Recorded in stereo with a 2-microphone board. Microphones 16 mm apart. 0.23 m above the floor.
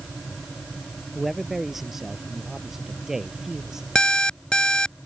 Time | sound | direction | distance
1.1 | a man speaking | 20° right (ahead or behind) | ?
4.0 | an alarm clock | 70° left (ahead or behind) | ?